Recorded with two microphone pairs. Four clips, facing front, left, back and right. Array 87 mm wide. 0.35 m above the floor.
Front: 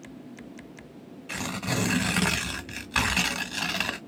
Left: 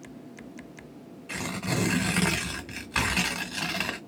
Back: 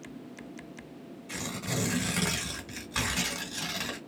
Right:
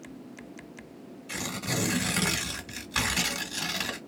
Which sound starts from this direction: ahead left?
Tearing paper, at 1.3 s.